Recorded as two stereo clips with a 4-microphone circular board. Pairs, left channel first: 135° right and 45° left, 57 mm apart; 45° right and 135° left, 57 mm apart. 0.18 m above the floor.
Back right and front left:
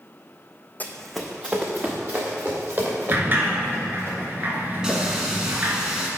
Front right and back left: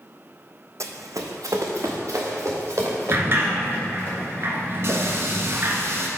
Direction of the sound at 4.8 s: 120° left.